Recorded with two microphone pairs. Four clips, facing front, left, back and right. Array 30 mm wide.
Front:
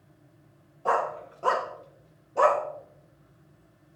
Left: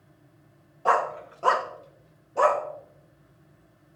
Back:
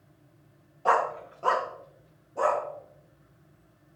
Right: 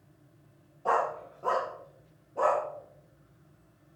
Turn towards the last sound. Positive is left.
turn(degrees=35)